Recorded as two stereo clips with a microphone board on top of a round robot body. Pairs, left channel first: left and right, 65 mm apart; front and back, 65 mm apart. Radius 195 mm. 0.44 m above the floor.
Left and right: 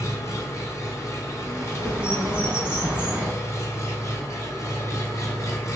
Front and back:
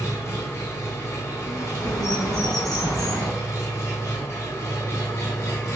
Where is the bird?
15° right, 1.0 m.